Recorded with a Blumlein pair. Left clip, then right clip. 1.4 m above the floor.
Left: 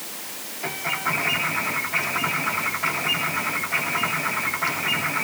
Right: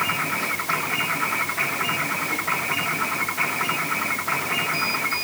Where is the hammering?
No hammering in this recording.